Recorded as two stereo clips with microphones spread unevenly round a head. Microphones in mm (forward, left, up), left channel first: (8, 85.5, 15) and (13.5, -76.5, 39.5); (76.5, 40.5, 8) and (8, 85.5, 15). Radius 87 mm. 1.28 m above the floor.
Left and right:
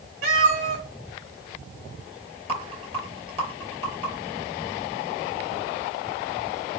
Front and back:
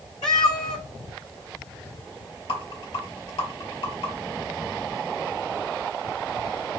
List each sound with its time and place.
0.2 s a cat meowing: 85° right, 1.9 m
2.5 s a rattle: 35° right, 4 m